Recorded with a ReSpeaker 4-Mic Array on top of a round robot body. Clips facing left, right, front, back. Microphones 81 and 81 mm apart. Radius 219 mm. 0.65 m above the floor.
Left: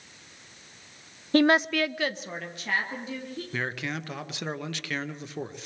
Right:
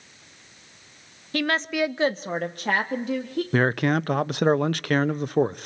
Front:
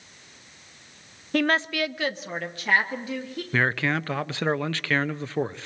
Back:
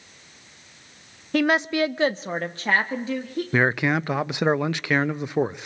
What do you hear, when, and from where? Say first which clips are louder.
1.3 s a woman speaking: left 3 dB, back 3 dB; 90° left, 0.8 m; by 3.4 s 120° right, 2.5 m
3.5 s a man speaking: right 11 dB, back 3 dB; 110° right, 0.7 m